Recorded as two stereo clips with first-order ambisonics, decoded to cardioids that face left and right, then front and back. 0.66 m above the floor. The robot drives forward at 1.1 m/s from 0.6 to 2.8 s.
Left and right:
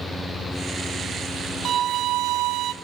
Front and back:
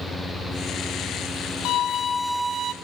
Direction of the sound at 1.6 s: 35° right.